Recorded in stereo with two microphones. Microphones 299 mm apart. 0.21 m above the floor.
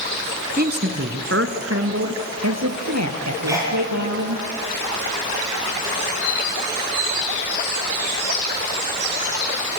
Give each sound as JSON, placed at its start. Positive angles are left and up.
{"t": 0.6, "sound": "a man speaking", "side_deg": -30, "distance_m": 1.8}
{"t": 3.5, "sound": "a sneeze", "side_deg": -10, "distance_m": 6.0}